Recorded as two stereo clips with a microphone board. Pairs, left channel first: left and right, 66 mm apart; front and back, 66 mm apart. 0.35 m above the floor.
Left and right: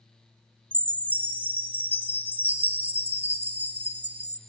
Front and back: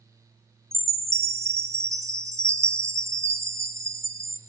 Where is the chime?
150° right, 1.3 m.